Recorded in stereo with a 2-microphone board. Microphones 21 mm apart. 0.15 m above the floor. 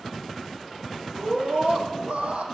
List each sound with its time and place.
1.1 s a scream: 65° right (ahead or behind), 6 m